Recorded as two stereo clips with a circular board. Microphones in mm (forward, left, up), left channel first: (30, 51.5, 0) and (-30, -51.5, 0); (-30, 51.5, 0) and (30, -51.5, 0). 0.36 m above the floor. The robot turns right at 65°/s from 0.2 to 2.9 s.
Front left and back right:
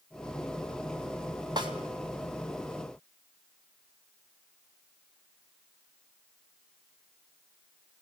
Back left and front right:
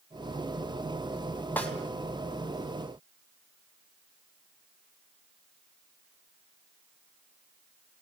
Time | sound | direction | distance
1.6 | a snare drum | 165° right | 3 m